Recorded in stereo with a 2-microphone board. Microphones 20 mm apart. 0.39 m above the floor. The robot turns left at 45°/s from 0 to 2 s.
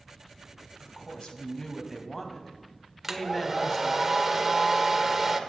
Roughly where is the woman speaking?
Left.